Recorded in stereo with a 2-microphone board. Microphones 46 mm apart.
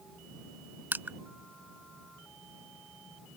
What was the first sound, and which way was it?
Crushing, 45° right (ahead or behind).